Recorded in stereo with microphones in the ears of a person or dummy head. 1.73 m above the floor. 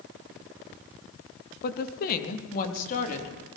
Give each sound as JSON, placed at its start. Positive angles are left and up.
{"t": 1.6, "sound": "a woman speaking", "side_deg": 55, "distance_m": 2.5}